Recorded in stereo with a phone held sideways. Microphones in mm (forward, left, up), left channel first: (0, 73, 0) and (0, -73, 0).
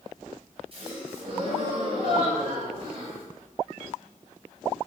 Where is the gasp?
40° right (ahead or behind), 0.9 m.